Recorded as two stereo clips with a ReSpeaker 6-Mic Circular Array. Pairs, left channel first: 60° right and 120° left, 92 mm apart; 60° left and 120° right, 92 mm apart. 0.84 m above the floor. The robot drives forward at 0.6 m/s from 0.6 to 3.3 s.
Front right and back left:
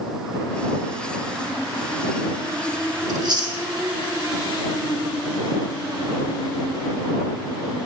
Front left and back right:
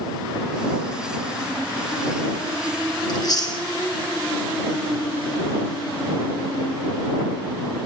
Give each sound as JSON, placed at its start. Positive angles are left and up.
{"t": 3.1, "sound": "chewing", "azimuth_deg": 85, "distance_m": 1.1}